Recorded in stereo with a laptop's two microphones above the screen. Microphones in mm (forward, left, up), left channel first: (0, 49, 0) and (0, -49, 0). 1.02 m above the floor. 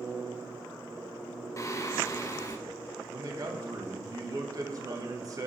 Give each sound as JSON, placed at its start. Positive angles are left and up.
{"t": 1.6, "sound": "singing", "side_deg": 35, "distance_m": 0.7}
{"t": 3.1, "sound": "a man speaking", "side_deg": -40, "distance_m": 0.8}